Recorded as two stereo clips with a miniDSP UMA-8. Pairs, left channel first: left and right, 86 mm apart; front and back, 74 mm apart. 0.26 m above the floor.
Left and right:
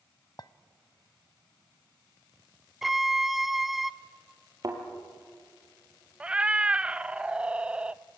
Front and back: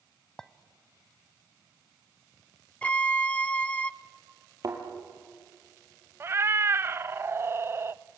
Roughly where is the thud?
Behind right.